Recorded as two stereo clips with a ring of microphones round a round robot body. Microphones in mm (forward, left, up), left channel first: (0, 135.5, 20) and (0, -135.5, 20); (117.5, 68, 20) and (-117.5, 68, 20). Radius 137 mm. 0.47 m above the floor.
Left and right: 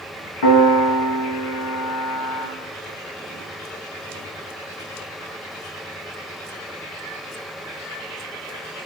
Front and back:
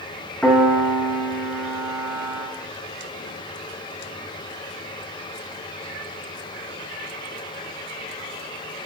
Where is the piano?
90° left, 5.5 m.